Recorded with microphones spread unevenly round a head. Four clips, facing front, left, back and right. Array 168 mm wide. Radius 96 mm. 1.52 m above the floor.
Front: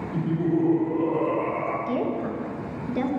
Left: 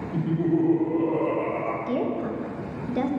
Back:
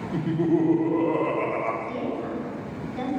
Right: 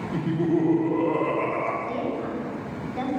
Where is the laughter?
155° left, 3 m.